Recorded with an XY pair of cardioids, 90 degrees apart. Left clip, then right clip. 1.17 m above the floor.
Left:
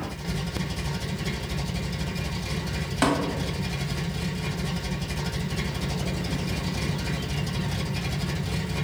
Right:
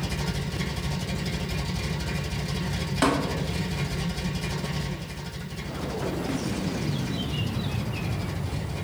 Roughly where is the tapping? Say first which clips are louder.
Even; ahead.